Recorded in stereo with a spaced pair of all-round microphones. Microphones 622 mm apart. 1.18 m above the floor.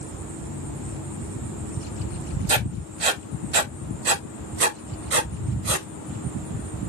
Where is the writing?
60° right (ahead or behind), 0.7 m.